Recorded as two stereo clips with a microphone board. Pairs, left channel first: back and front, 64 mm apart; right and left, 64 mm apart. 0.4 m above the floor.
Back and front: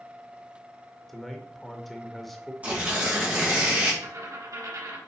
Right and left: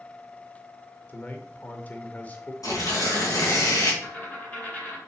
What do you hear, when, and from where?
1.1 s a man speaking: 95° right, 0.8 m
2.6 s tearing paper: 70° right, 2.5 m
4.0 s a dropped coin: 20° right, 3 m